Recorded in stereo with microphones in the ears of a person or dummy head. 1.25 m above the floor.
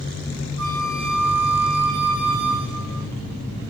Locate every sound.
0.6 s a flute: 75° right (ahead or behind), 3 m